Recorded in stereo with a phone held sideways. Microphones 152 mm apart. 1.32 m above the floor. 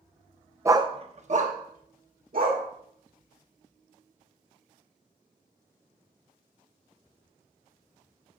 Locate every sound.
0.7 s a dog barking: 20° right (ahead or behind), 0.7 m; by 2.6 s 70° right (ahead or behind), 2 m